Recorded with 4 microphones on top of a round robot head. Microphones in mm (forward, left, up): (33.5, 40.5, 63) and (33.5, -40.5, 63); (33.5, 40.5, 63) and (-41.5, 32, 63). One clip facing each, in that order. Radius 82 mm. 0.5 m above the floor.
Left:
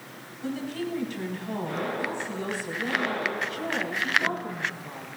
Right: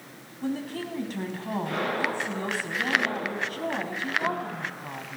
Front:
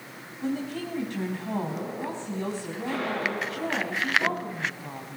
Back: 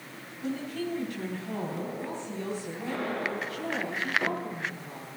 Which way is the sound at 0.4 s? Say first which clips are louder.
Even, front 2 dB; 45° right.